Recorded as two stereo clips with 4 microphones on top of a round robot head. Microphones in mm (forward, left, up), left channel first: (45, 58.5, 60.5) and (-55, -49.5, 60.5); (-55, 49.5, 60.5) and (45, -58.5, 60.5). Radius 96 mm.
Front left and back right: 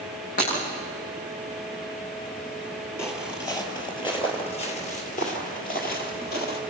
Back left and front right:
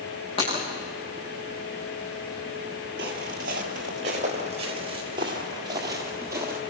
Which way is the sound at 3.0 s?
25° right.